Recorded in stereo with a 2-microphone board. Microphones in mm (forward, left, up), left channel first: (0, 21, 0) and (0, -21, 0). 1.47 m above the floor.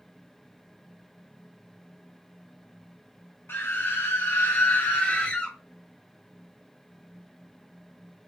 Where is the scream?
60° left (ahead or behind), 0.9 m; by 5.6 s 20° left (ahead or behind), 0.7 m.